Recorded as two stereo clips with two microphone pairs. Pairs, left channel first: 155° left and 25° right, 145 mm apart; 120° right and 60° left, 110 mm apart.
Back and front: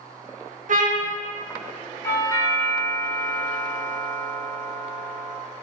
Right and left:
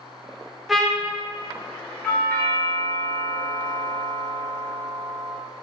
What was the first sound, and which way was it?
A trumpet, 35° right.